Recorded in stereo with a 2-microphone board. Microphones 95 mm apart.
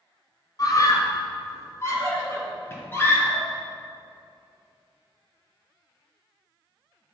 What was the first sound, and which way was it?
A scream, 40° left (ahead or behind).